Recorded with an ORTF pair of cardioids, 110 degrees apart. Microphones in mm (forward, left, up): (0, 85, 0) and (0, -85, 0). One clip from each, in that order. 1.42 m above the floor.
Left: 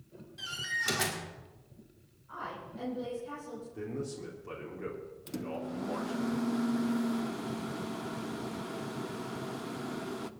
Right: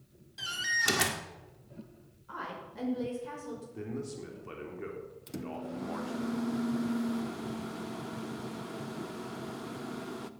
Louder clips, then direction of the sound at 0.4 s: Right 4 dB; 30° right.